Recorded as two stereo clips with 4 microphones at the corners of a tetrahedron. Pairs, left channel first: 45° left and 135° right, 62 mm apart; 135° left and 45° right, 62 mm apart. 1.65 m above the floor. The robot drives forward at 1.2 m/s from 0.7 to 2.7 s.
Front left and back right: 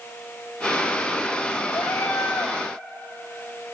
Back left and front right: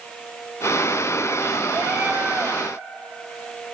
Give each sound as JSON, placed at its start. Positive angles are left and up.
{"t": 1.7, "sound": "a cat meowing", "azimuth_deg": 20, "distance_m": 3.5}